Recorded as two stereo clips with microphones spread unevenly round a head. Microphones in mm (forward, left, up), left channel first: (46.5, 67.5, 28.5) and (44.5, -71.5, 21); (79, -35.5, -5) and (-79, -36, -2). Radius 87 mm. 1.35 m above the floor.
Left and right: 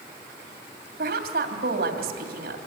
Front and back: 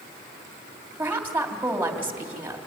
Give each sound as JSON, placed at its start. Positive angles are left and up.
{"t": 1.0, "sound": "a woman speaking", "azimuth_deg": -100, "distance_m": 2.5}